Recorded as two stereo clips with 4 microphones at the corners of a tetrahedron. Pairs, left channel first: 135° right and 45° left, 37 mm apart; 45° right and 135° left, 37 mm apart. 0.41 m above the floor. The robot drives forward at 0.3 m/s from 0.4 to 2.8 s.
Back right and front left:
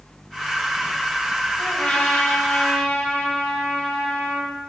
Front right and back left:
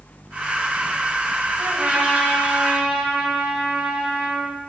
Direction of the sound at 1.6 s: Straight behind.